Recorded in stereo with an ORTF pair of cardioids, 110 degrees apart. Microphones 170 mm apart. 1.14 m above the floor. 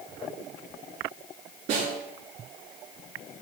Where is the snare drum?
70° right, 5.5 m.